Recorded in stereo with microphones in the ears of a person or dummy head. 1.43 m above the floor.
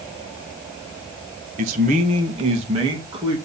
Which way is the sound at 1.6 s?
40° right (ahead or behind).